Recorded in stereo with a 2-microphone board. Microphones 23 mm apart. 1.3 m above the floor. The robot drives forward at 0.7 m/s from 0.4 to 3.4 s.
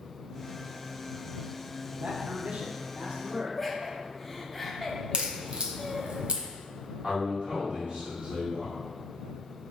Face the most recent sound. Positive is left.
turn(degrees=-35)  # may be behind; listen again after turning